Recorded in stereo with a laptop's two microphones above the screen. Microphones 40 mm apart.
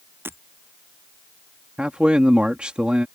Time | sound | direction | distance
0.2 | breaking glass | 70° right (ahead or behind) | ?
1.8 | a man speaking | 30° right (ahead or behind) | ?